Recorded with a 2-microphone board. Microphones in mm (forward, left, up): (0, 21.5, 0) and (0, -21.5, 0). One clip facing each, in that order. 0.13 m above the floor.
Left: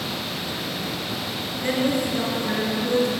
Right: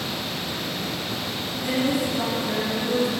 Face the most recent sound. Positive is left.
turn(degrees=45)  # may be behind; listen again after turning